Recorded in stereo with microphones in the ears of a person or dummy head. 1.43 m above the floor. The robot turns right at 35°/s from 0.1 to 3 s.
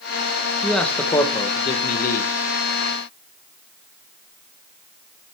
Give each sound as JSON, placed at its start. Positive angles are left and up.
{"t": 0.6, "sound": "a man speaking", "azimuth_deg": -5, "distance_m": 0.8}